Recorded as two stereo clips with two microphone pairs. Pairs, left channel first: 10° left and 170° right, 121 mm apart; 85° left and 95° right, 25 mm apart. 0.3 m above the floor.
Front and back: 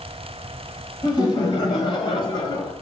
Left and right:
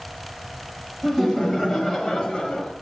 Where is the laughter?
Straight ahead, 1.5 m; by 2.7 s 40° left, 1.8 m.